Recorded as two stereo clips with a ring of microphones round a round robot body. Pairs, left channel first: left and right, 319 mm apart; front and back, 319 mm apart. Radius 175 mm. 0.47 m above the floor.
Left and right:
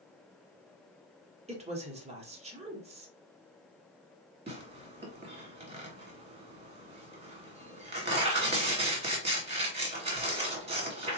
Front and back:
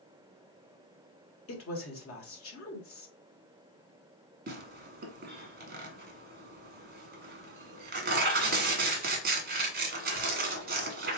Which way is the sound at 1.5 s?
25° right.